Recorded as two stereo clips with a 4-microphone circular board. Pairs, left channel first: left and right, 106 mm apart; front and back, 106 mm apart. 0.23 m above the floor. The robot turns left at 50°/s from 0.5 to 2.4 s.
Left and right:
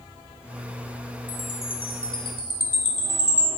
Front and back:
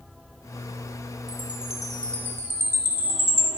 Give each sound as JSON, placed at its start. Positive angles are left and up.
{"t": 1.3, "sound": "a chime", "azimuth_deg": 120, "distance_m": 2.5}